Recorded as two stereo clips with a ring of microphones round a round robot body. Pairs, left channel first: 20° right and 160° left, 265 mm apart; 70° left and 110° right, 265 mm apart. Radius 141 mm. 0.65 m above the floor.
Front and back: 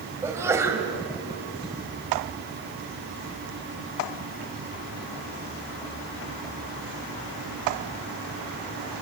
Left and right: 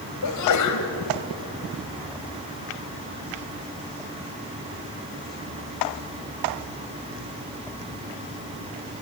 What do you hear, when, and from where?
0.2 s a sneeze: 80° left, 3 m